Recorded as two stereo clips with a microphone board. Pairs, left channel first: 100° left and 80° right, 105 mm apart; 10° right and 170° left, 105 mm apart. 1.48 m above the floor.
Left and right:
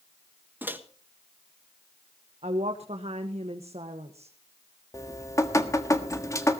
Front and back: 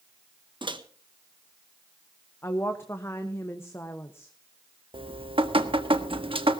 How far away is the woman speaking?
About 1.3 m.